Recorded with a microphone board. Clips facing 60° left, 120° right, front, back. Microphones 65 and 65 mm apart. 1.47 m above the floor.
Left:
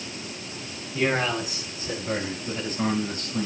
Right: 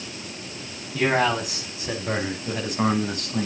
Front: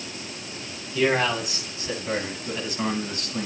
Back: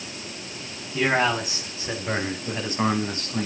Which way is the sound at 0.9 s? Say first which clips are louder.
Right 3 dB, even; 115° right.